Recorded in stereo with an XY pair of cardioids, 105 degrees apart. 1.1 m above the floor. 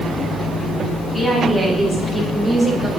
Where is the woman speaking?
5° left, 4.5 m; by 2.9 s 10° left, 2.5 m.